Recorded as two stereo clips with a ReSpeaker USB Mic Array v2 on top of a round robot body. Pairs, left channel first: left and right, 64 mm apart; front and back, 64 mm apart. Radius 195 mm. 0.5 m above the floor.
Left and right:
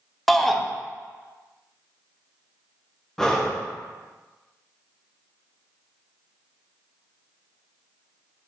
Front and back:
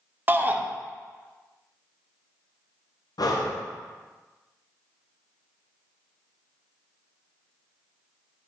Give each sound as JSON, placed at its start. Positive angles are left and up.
{"t": 0.3, "sound": "a shout", "azimuth_deg": 175, "distance_m": 0.8}
{"t": 3.2, "sound": "breathing", "azimuth_deg": 5, "distance_m": 0.8}